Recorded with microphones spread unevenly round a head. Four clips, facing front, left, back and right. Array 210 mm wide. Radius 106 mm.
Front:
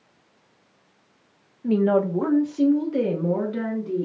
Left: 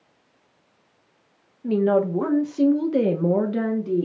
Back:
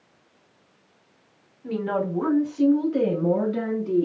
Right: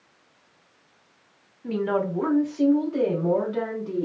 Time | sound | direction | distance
1.6 | a woman speaking | 30° left | 1.1 m